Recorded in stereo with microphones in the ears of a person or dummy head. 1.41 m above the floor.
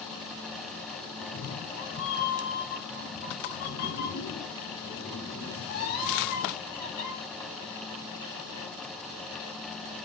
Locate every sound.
1.2 s a cat meowing: 55° left (ahead or behind), 2.5 m; by 7.1 s 50° left (ahead or behind), 5.5 m